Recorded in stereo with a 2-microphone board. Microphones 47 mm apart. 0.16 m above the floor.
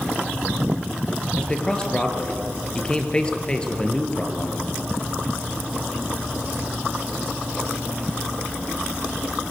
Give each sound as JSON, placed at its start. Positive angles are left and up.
{"t": 1.4, "sound": "a man speaking", "side_deg": 20, "distance_m": 3.5}